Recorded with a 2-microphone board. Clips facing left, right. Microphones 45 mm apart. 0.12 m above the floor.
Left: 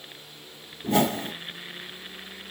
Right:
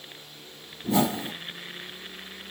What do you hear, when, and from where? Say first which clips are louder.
0.8 s a whoosh: left 1 dB; 45° left (ahead or behind), 0.9 m